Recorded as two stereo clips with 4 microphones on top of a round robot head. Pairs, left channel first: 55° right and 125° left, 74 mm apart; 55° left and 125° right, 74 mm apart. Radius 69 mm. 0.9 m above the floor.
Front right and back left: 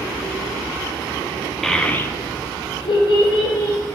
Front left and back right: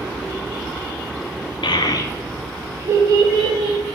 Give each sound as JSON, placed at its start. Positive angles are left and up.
{"t": 1.6, "sound": "a child speaking", "azimuth_deg": 30, "distance_m": 0.8}